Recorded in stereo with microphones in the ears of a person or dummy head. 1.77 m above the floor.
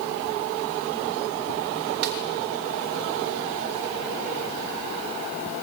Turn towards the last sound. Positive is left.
turn(degrees=-55)  # may be behind; listen again after turning